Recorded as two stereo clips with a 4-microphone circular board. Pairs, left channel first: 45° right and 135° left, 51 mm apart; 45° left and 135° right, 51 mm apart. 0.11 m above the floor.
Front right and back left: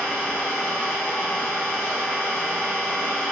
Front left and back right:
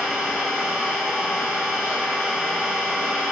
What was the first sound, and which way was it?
An engine running, straight behind.